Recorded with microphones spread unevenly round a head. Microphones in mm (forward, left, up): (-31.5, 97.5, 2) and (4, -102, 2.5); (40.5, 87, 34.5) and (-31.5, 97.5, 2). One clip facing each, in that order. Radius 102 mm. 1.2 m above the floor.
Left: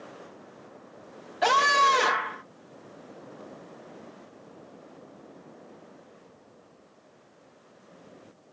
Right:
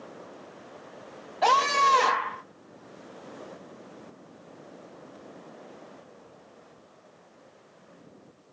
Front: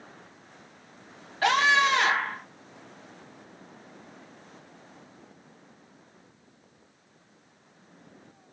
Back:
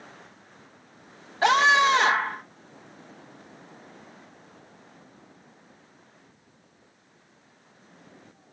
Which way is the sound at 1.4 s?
165° left.